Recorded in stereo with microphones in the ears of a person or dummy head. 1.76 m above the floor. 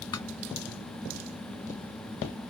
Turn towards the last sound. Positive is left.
turn(degrees=25)  # may be behind; listen again after turning